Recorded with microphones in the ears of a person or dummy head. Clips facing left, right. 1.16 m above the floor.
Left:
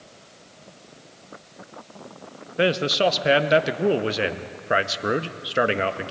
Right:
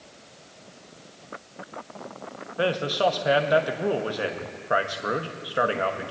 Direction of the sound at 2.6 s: 25° left (ahead or behind).